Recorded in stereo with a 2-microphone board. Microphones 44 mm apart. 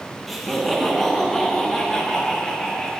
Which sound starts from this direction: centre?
Laughter, at 0.3 s.